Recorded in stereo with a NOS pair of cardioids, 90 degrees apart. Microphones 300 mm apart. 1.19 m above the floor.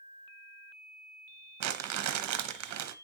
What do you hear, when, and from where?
1.6 s crumpling: 65° right, 0.9 m